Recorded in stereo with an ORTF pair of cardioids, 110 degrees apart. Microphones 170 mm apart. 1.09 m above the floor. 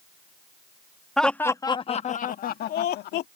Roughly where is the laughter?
Ahead.